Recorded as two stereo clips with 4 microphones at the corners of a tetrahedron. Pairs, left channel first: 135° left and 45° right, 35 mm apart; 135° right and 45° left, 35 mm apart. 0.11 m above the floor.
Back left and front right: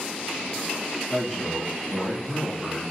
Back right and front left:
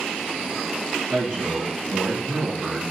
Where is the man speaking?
80° left, 2 m.